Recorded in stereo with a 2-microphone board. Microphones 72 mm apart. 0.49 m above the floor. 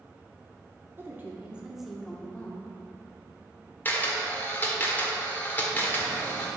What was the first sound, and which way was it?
A woman speaking, 35° right (ahead or behind).